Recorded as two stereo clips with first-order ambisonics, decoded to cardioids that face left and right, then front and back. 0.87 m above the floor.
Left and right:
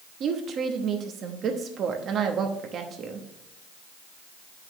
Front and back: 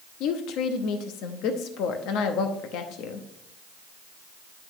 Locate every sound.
0.2 s a woman speaking: 35° right, 0.8 m